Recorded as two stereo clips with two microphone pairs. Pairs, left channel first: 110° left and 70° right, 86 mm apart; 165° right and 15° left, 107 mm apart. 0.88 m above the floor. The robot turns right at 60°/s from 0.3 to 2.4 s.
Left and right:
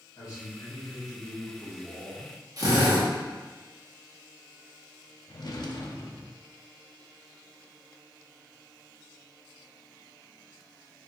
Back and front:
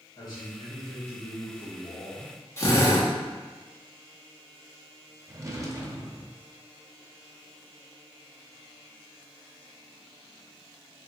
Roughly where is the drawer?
Left.